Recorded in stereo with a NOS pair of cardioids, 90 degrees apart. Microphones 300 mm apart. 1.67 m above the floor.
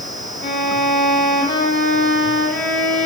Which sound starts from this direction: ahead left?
A violin, at 0.4 s.